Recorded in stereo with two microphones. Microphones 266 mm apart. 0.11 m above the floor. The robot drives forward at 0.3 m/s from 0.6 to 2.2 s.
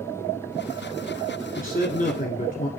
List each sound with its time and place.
1.6 s a man speaking: 30° left (ahead or behind), 1.3 m